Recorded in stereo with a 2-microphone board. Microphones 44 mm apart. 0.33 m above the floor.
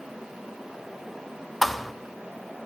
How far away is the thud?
About 0.5 m.